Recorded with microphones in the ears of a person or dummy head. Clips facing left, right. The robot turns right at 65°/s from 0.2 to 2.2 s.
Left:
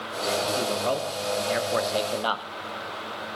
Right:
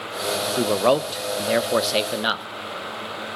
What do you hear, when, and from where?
0.6 s a man speaking: 130° right, 0.5 m; by 2.5 s 25° right, 0.5 m